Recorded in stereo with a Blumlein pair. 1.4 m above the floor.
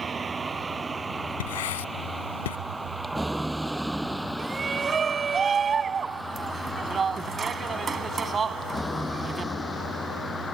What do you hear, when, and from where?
0.0 s a vehicle: 15° right; by 10.6 s 10° left
1.4 s writing: 60° left
4.4 s a shout: 20° right